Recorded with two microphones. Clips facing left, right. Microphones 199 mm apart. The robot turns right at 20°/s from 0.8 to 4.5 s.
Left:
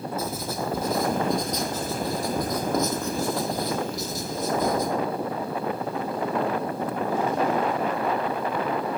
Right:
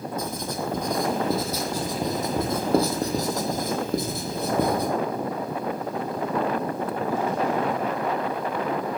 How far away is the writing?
About 2.5 m.